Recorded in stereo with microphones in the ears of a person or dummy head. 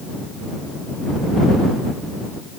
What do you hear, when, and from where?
Only background noise.